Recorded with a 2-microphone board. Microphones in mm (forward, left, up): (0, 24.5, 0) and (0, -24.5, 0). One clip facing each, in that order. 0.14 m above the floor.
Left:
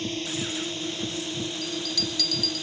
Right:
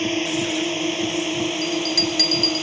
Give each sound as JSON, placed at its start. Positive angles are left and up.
{"t": 0.0, "sound": "a drone", "side_deg": -55}
{"t": 1.6, "sound": "a bell", "side_deg": -60}